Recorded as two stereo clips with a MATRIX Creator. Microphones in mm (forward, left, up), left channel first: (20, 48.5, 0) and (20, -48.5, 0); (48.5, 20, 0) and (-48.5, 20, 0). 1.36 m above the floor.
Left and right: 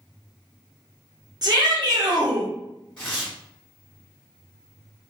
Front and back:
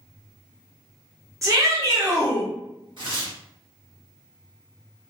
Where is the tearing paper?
165° left, 1.5 m.